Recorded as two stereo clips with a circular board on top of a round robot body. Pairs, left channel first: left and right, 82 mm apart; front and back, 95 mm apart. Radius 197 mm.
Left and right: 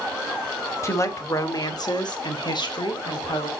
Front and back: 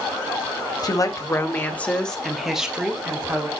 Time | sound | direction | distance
0.8 | a woman speaking | 40° left | 1.9 m